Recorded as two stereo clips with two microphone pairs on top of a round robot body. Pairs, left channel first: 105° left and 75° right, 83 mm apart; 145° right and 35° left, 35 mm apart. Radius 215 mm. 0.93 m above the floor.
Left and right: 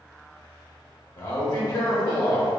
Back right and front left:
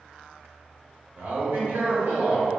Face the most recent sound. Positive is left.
turn(degrees=50)